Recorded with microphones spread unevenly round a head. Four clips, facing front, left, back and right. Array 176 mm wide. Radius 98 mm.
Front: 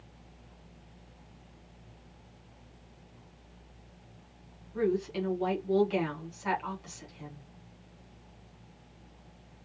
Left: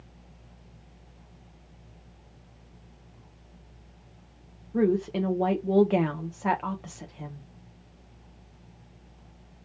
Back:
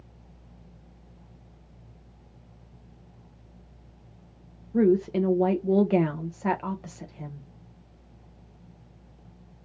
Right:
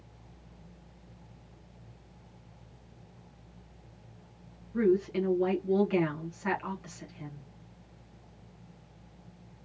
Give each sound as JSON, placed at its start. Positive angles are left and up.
{"t": 4.7, "sound": "a woman speaking", "azimuth_deg": 150, "distance_m": 0.8}